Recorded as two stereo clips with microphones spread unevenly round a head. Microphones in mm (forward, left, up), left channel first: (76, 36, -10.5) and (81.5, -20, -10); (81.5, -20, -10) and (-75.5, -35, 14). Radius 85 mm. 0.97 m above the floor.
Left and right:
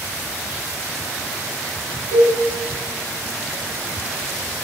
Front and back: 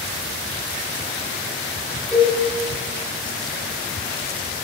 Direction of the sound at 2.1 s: 80° right.